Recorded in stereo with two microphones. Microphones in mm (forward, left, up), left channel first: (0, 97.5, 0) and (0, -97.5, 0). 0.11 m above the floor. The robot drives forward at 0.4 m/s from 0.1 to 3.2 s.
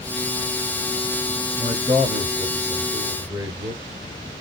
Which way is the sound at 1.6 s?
20° right (ahead or behind).